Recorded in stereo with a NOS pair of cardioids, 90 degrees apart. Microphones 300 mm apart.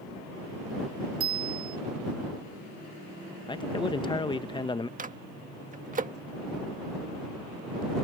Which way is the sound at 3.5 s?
15° left.